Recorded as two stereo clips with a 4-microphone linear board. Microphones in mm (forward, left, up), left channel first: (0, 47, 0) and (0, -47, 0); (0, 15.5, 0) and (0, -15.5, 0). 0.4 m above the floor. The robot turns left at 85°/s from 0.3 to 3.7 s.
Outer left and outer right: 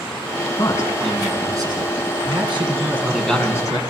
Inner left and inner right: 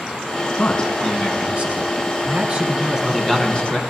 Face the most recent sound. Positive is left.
turn(degrees=140)